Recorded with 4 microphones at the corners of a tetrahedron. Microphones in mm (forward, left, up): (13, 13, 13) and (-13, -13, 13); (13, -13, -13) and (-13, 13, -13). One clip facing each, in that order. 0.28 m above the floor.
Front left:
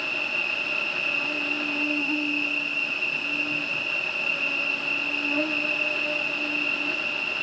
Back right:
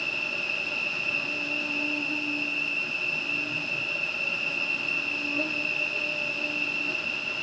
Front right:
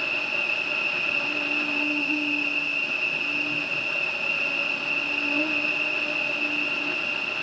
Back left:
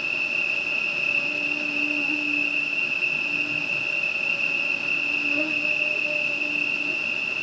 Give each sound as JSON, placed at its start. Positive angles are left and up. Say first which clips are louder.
{"t": 0.0, "sound": "an insect", "louder": "front left 3 dB, back left 1 dB", "azimuth_deg": 20, "distance_m": 1.1}